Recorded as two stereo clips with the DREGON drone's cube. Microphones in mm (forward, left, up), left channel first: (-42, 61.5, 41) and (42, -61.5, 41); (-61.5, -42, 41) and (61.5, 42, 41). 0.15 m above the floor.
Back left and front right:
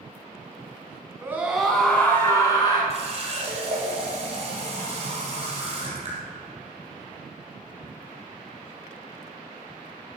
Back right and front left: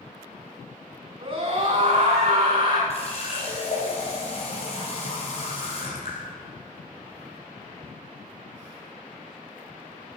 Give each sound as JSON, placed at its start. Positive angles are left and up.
{"t": 1.2, "sound": "a scream", "azimuth_deg": 10, "distance_m": 1.4}
{"t": 2.9, "sound": "a running tap", "azimuth_deg": -100, "distance_m": 4.0}